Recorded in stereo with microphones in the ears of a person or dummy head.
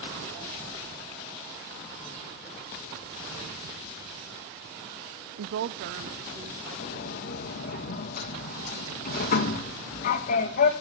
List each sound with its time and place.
5.4 s a woman speaking: 60° right (ahead or behind), 0.5 m; by 7.8 s 55° right (ahead or behind), 3 m
6.8 s a sliding door: 50° left (ahead or behind), 1.9 m